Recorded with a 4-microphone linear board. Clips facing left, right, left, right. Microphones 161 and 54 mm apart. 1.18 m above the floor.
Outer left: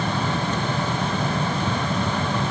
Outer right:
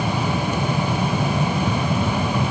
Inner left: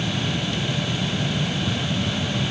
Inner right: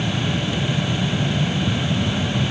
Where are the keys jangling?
No keys jangling in this recording.